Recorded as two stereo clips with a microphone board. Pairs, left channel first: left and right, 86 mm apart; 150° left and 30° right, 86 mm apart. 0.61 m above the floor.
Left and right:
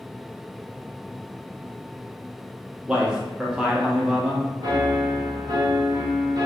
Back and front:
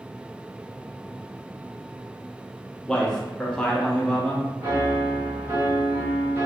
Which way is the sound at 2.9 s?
150° right.